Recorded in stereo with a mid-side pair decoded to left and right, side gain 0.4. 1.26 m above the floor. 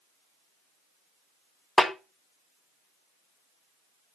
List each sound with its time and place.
1.8 s a snare drum: 25° left, 1.4 m